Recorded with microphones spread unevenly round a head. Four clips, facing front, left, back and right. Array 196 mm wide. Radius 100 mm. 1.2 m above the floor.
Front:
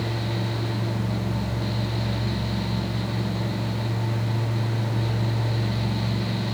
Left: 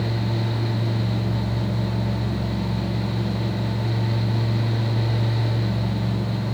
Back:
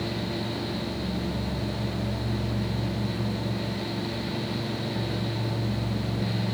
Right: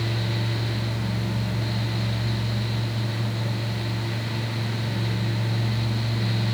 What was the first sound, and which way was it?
Only background noise.